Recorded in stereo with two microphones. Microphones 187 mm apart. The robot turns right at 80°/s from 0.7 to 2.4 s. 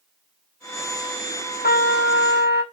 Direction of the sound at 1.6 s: 55° left.